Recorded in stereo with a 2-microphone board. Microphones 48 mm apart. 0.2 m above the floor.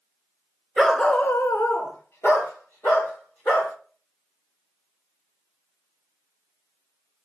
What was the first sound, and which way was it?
A dog barking, centre (ahead or behind).